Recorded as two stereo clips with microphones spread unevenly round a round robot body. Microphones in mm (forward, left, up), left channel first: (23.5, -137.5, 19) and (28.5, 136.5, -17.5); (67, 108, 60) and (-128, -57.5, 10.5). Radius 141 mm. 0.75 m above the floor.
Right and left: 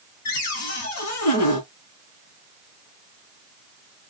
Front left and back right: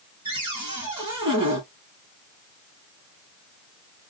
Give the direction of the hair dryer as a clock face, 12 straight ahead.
I don't hear a hair dryer.